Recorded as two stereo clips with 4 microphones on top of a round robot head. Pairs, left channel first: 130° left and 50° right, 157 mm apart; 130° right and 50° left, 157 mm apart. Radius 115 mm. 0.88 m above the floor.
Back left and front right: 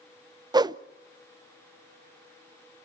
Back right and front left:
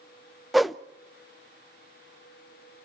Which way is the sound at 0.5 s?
40° right.